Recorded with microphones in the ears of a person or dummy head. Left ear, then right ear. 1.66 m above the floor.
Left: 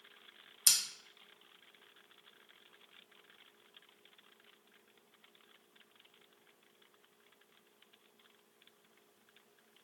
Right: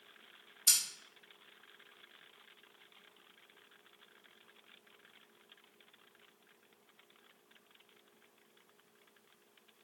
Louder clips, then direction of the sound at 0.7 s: Left 1 dB; 60° left (ahead or behind).